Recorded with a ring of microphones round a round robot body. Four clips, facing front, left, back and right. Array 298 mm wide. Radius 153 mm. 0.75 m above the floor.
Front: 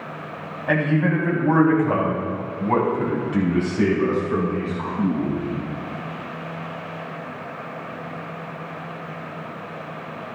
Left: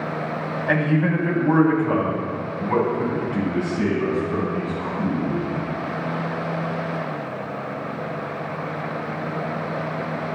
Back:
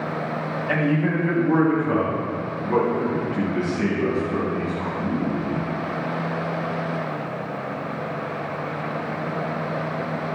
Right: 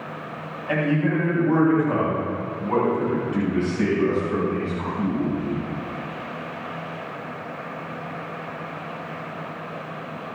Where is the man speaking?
45° left, 4.5 m; by 5.7 s 20° right, 7.5 m.